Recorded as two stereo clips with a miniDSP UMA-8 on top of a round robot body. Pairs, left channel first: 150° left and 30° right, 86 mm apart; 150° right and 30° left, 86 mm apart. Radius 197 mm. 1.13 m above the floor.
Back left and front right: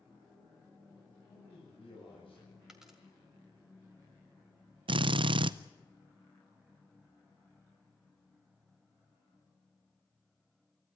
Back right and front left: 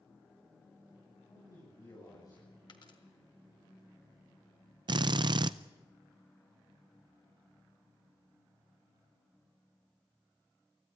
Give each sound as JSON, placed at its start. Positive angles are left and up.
{"t": 1.3, "sound": "a man speaking", "azimuth_deg": 165, "distance_m": 10.0}
{"t": 2.7, "sound": "a dropped coin", "azimuth_deg": -115, "distance_m": 1.8}
{"t": 4.9, "sound": "a drill", "azimuth_deg": -5, "distance_m": 0.6}